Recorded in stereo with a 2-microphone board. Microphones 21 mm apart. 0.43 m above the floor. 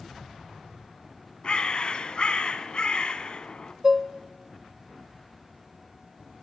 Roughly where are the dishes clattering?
Centre.